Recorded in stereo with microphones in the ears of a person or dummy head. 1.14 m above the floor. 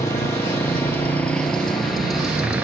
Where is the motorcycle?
15° left (ahead or behind); by 2.6 s 10° right (ahead or behind).